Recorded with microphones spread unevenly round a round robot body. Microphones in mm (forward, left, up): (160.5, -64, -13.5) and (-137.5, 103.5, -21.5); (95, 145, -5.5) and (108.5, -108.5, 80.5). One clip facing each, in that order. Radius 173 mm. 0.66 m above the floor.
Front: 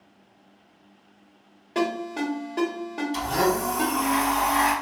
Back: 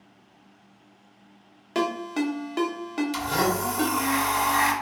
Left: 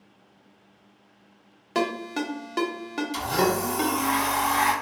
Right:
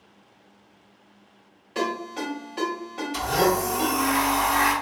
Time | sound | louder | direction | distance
1.8 | a ringtone | even, left 2 dB | 95° left | 0.9 m
3.1 | a blender | front 2 dB, right 3 dB | 140° left | 1.4 m